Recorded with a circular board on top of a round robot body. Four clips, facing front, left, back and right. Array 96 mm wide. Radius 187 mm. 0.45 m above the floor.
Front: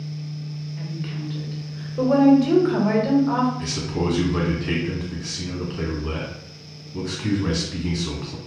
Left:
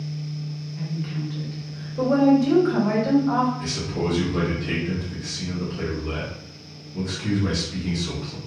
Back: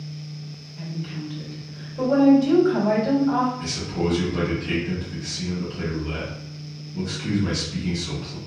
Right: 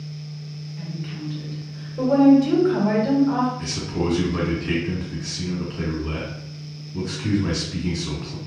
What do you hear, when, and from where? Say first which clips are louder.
0.8 s a woman speaking: left 3 dB, back 1 dB; 10° left, 1.6 m
3.6 s a man speaking: right 1 dB, front 1 dB; 20° right, 1.8 m